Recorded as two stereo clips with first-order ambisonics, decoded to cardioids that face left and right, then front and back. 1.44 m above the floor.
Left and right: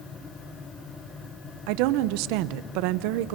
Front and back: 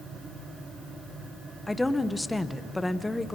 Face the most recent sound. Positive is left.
turn(degrees=-85)